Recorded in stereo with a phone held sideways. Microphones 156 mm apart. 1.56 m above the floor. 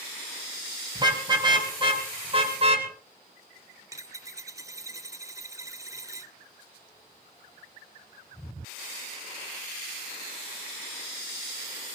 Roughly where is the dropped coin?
Centre.